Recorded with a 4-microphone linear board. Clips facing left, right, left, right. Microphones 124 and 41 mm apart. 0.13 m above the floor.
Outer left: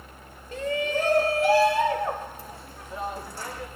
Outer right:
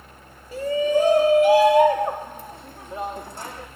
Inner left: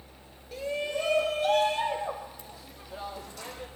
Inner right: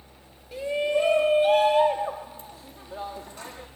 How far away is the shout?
About 1.7 m.